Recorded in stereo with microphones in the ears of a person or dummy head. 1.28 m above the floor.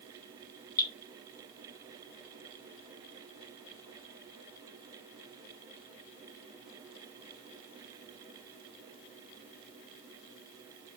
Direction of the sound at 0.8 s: 20° left (ahead or behind).